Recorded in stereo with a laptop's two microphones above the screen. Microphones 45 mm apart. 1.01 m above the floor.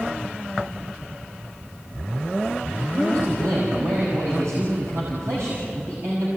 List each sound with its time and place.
2.9 s a man speaking: 80° right, 5 m